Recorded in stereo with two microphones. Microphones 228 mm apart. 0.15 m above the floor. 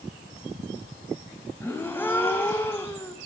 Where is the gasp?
10° left (ahead or behind), 2.5 m.